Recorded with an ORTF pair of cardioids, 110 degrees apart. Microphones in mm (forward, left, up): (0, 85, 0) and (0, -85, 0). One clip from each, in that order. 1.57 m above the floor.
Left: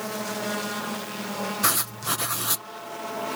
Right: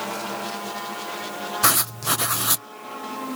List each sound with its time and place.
1.6 s writing: 20° right